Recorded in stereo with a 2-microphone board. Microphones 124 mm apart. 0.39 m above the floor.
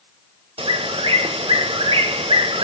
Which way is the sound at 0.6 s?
50° right (ahead or behind).